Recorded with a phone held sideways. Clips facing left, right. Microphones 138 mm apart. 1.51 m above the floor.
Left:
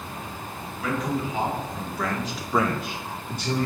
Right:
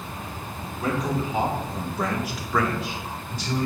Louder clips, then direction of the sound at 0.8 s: Right 1 dB; 40° right (ahead or behind).